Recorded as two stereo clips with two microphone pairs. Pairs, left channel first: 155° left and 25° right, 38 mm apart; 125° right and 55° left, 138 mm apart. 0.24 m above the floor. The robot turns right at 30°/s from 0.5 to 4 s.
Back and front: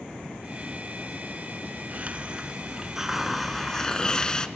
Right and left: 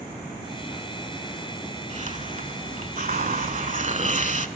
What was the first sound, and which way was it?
A hiss, 25° left.